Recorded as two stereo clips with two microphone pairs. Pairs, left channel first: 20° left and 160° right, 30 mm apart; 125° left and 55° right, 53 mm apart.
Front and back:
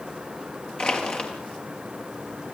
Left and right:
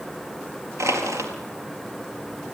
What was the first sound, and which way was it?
Crushing, 35° right.